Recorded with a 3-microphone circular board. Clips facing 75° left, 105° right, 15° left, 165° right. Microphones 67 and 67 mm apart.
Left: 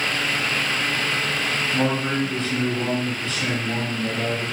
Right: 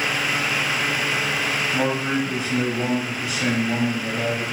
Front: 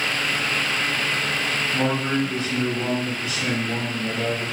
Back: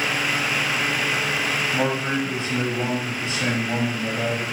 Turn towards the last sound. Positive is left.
turn(degrees=-170)